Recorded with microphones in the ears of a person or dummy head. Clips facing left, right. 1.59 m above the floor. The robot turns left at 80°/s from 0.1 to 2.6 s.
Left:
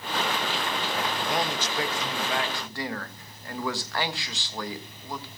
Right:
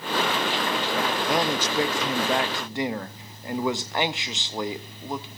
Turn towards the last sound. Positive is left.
turn(degrees=-165)